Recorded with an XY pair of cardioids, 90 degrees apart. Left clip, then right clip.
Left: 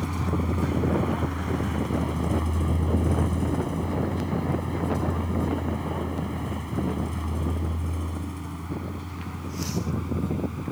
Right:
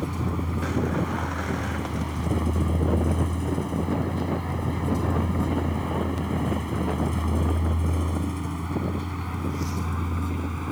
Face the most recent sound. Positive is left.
turn(degrees=-50)